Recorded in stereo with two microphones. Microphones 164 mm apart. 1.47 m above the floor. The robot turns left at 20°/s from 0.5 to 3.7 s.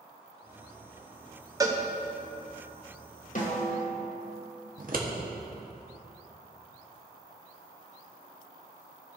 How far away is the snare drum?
About 1.7 m.